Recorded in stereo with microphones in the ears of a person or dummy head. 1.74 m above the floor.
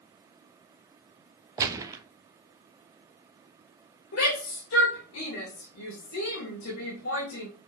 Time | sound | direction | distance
1.6 | a gunshot | 20° right (ahead or behind) | 1.3 m
4.1 | a shout | 70° left (ahead or behind) | 3.5 m